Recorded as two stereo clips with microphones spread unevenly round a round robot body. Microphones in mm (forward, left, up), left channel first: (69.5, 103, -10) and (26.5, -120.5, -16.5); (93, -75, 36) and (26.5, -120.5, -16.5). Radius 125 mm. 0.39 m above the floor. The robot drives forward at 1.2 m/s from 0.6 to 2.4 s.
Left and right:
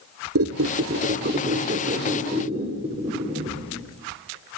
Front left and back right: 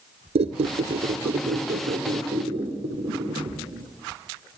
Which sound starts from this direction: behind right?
A squeak, at 0.3 s.